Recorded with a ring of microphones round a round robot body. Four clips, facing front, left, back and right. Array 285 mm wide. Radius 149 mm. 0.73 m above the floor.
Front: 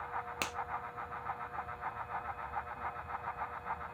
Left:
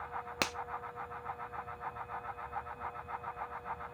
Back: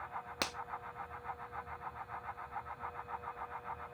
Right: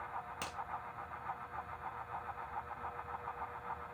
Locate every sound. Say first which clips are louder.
0.4 s a finger snap: left 8 dB, even; 100° left, 0.7 m